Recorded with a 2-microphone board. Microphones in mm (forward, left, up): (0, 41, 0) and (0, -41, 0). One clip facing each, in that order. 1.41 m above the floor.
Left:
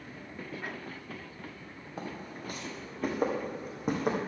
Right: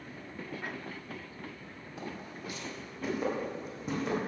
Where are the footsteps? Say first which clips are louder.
Left 2 dB; 40° left (ahead or behind), 2.5 m; by 4.2 s 55° left (ahead or behind), 3.5 m.